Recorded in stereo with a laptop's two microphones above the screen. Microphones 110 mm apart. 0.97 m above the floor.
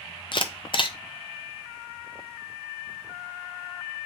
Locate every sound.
0.3 s a camera shutter: 50° left (ahead or behind), 0.5 m